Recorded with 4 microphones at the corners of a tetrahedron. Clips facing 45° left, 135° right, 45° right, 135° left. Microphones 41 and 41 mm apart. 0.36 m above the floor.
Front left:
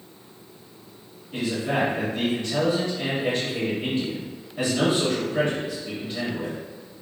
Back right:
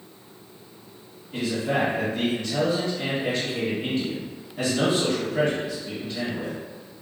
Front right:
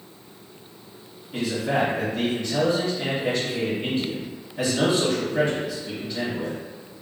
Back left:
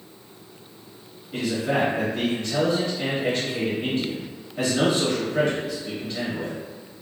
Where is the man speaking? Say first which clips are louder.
Even, even; 110° left, 1.5 m.